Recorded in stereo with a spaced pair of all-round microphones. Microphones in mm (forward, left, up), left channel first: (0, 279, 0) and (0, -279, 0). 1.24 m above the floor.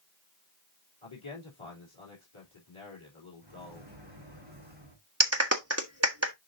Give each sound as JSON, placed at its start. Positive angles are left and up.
{"t": 1.0, "sound": "a man speaking", "side_deg": 55, "distance_m": 3.0}
{"t": 3.4, "sound": "a microwave", "side_deg": -50, "distance_m": 4.0}
{"t": 5.2, "sound": "a clap", "side_deg": -25, "distance_m": 1.4}